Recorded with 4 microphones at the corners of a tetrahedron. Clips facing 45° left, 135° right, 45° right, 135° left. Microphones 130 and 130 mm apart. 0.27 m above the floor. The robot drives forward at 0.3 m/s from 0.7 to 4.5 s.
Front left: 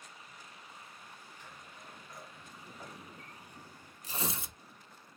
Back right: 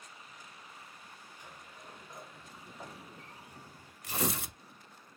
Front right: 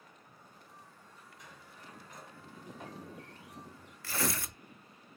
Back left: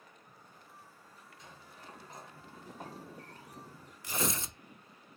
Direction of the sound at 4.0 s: 155° right.